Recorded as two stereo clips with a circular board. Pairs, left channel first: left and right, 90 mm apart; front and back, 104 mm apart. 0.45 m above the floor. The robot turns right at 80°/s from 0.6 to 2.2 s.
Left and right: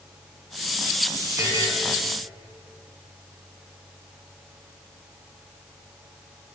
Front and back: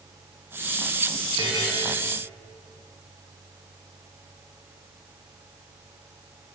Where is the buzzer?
145° right, 2.5 m; by 1.7 s 120° right, 2.5 m.